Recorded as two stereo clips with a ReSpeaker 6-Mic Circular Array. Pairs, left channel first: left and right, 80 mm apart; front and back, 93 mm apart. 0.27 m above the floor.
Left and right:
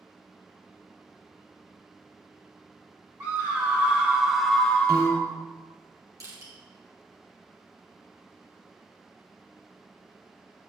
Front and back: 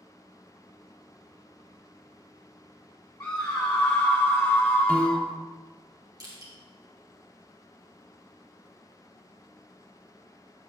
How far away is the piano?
About 1.4 m.